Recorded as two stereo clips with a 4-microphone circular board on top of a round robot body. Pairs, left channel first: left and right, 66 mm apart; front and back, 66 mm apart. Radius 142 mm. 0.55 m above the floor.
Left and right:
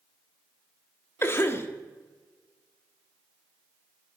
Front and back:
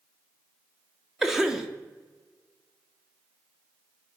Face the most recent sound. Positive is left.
turn(degrees=100)